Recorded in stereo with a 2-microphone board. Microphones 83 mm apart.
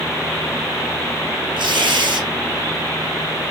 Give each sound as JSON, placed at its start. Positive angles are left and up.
{"t": 1.6, "sound": "tearing paper", "side_deg": -70, "distance_m": 3.5}